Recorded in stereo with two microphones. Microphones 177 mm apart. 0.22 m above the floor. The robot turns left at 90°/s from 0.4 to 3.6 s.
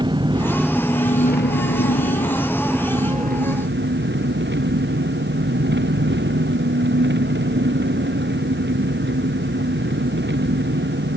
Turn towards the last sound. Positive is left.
turn(degrees=-85)